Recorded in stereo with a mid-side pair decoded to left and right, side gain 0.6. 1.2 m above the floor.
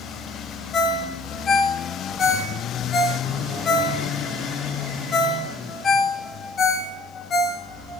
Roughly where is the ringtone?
Ahead left.